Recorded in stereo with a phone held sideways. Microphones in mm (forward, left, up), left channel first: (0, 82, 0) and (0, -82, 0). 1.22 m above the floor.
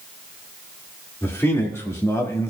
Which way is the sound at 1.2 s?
15° left (ahead or behind).